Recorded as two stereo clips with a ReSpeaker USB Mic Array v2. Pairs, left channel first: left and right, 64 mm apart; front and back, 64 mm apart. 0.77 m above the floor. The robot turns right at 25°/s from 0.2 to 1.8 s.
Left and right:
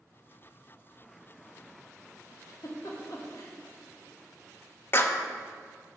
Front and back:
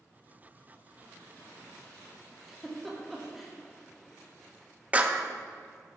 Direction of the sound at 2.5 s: 90° left.